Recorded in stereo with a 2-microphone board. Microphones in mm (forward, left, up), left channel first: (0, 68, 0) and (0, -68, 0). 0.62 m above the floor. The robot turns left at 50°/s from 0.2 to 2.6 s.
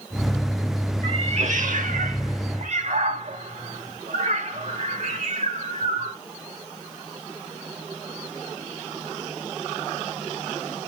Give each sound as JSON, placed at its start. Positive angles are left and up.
{"t": 1.0, "sound": "a cat meowing", "side_deg": -40, "distance_m": 0.8}